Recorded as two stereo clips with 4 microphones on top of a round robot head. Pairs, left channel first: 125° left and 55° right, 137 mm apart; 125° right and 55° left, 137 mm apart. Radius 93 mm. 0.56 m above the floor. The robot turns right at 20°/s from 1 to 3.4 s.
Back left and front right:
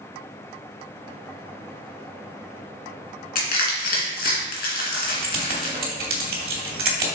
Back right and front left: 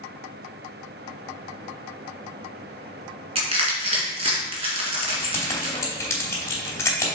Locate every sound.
3.4 s crushing: 100° left, 2 m
5.0 s keys jangling: 55° right, 2.5 m